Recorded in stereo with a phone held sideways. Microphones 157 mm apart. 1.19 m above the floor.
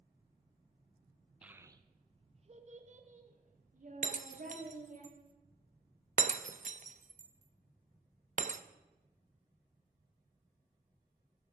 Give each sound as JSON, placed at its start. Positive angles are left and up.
{"t": 1.4, "sound": "a child speaking", "side_deg": -5, "distance_m": 0.6}
{"t": 4.0, "sound": "breaking glass", "side_deg": -50, "distance_m": 0.5}